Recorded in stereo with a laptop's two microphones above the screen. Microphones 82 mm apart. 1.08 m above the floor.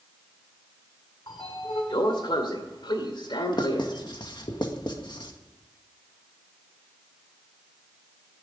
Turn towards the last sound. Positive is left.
turn(degrees=65)  # may be behind; listen again after turning